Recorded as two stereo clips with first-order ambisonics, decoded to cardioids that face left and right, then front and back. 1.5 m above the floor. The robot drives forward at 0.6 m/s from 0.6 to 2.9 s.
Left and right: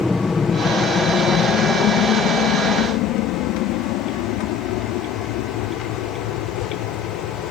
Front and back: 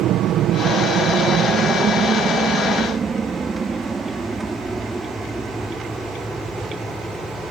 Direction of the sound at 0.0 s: 170° left.